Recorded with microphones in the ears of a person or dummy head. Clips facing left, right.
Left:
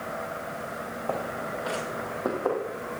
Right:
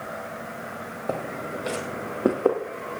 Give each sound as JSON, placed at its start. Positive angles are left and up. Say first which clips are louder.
{"t": 1.1, "sound": "footsteps", "louder": "right 2 dB", "side_deg": -30, "distance_m": 2.5}